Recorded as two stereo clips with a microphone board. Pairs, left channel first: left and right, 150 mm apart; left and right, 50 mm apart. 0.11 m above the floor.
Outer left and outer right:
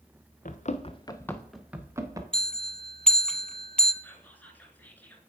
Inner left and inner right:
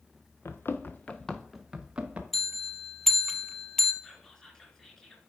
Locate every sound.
0.5 s running footsteps: 60° left (ahead or behind), 0.8 m; by 2.2 s 25° right (ahead or behind), 1.1 m
2.3 s a bell: 5° left (ahead or behind), 0.5 m
4.0 s whispering: 10° left (ahead or behind), 1.1 m